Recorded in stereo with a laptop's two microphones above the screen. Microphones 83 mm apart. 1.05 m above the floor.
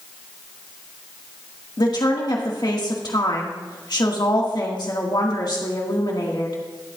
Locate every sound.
1.8 s a woman speaking: 60° left (ahead or behind), 1.9 m